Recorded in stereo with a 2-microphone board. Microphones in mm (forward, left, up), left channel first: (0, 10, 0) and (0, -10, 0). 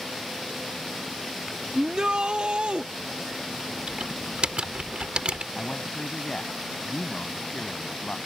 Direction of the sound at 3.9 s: 60° right (ahead or behind).